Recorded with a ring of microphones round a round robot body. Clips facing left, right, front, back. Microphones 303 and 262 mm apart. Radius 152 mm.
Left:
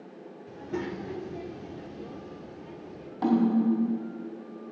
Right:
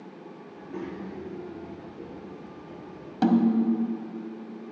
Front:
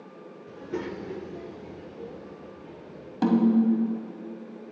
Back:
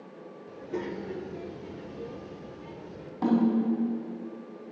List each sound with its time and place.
0.5 s a child speaking: 65° left, 1.4 m; by 3.1 s 170° left, 1.4 m
3.2 s a snare drum: 55° right, 1.5 m